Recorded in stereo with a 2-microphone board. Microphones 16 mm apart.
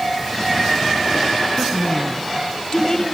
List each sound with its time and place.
1.6 s a woman speaking: 20° left (ahead or behind), 1.7 m; by 3.0 s 40° left (ahead or behind), 2 m